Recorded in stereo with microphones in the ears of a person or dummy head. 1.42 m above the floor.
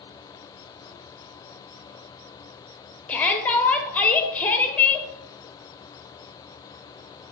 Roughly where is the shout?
Centre.